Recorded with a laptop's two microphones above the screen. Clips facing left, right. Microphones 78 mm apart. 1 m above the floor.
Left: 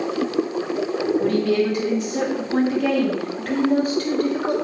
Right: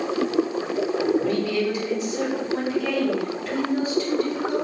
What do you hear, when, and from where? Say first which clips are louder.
1.2 s a woman speaking: left 4 dB; 55° left (ahead or behind), 1.7 m